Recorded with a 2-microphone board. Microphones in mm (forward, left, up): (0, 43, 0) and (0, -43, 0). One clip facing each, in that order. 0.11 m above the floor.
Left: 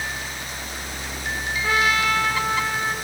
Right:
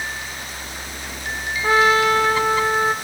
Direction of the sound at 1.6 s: 30° right (ahead or behind).